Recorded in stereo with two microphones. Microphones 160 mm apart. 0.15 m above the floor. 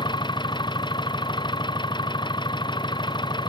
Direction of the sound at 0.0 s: 30° left (ahead or behind).